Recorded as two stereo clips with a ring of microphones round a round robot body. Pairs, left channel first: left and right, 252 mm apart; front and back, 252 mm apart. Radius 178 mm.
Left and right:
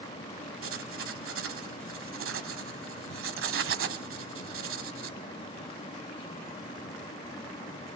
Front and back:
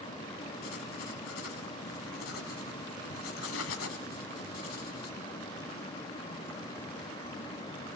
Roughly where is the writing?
Ahead right.